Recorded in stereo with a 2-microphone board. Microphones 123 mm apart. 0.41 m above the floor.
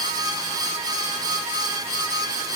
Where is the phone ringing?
I don't hear a phone ringing.